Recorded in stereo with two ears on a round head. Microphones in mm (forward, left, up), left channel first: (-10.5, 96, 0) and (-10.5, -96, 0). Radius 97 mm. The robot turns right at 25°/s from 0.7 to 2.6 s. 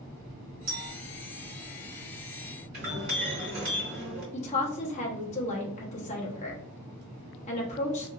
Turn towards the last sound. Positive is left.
turn(degrees=30)  # may be behind; listen again after turning